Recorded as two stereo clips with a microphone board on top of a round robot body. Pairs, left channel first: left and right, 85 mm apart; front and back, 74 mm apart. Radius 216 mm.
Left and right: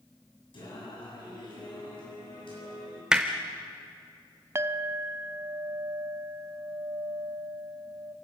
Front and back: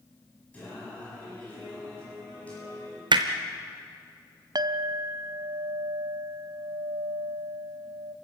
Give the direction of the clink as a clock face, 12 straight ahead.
5 o'clock.